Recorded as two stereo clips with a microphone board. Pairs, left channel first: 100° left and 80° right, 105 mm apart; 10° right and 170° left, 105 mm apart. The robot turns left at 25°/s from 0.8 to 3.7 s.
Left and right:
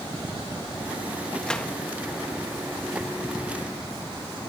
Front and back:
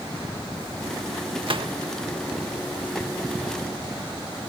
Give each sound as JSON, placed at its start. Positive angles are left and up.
{"t": 1.4, "sound": "a gunshot", "azimuth_deg": 180}